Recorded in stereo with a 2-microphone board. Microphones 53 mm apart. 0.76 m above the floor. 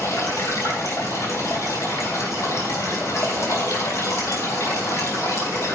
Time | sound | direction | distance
0.0 | running water | 75° left (ahead or behind) | 4 m